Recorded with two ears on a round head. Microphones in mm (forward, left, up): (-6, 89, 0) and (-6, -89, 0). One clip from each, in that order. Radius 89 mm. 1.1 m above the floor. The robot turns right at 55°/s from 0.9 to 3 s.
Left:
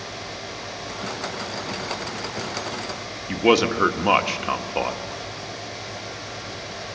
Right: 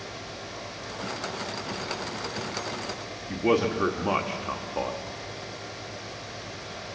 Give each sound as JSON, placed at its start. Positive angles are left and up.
{"t": 3.3, "sound": "a man speaking", "side_deg": 85, "distance_m": 1.3}